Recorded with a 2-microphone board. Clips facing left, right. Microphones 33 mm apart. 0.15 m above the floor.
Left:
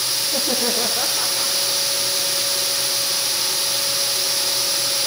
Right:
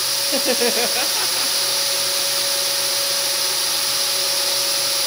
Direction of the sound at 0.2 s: 65° right (ahead or behind).